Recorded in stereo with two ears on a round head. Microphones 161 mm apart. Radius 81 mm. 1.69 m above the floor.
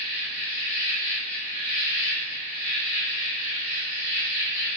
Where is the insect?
35° right (ahead or behind), 2 m.